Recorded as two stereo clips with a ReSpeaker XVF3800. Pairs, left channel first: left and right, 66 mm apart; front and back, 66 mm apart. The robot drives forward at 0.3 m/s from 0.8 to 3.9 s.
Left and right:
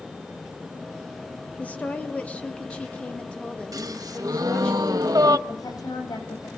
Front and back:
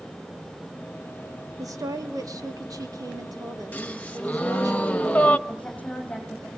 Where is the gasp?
70° right, 0.8 m.